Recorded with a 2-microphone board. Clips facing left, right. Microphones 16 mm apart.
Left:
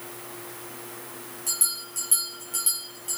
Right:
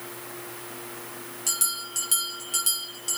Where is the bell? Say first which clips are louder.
Right 2 dB; 45° right (ahead or behind), 4.5 m.